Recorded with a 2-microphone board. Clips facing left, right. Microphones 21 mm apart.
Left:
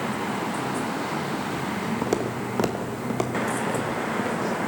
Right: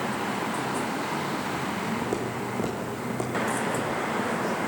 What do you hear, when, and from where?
2.0 s footsteps: 65° left (ahead or behind), 1.5 m; by 4.6 s 30° left (ahead or behind), 3.5 m